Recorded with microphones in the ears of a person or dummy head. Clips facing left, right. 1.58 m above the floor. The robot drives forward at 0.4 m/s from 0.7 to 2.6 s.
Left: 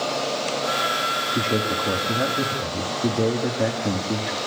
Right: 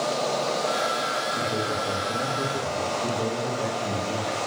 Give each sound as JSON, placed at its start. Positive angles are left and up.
{"t": 1.3, "sound": "a man speaking", "side_deg": 80, "distance_m": 2.5}